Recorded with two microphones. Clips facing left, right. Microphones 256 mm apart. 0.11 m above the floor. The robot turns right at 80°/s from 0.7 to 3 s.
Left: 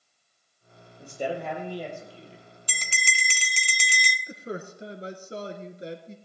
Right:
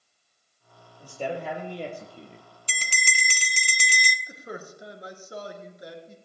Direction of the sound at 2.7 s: 25° right (ahead or behind).